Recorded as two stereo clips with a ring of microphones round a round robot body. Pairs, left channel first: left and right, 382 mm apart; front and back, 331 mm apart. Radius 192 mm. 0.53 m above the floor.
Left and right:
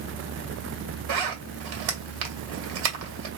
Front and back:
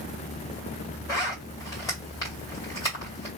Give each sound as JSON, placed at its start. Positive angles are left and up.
{"t": 1.1, "sound": "a zipper", "azimuth_deg": -80, "distance_m": 2.0}